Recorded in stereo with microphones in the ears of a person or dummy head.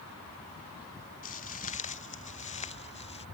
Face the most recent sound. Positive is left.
turn(degrees=30)  # may be behind; listen again after turning